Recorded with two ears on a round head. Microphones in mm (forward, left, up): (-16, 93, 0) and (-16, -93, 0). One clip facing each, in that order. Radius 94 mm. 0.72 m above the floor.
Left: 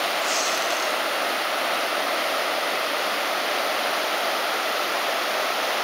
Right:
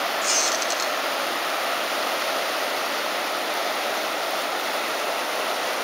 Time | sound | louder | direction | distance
0.2 | a squeak | left 1 dB | 35° right (ahead or behind) | 1.9 m